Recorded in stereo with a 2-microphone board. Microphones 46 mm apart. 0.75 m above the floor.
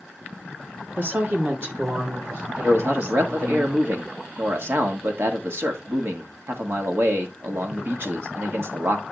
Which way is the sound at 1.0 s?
45° right (ahead or behind).